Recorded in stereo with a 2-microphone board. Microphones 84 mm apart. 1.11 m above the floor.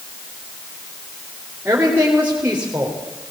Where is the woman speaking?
20° right (ahead or behind), 4 m.